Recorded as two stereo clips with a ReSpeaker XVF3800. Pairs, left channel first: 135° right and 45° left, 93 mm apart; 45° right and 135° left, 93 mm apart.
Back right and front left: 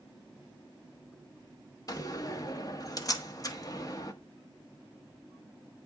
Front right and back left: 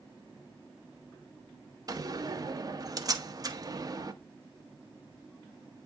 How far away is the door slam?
About 0.8 m.